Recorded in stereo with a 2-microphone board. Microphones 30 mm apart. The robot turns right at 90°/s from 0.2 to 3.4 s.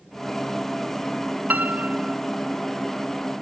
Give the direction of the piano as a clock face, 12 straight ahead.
4 o'clock.